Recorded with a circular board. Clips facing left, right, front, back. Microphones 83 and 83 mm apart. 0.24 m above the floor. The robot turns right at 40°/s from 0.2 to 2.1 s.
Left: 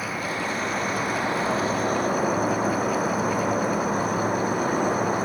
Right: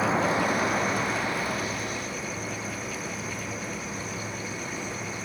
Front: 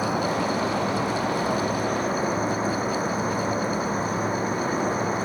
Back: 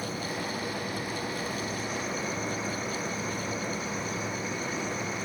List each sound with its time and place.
0.0 s an insect: 25° right; by 5.2 s 50° left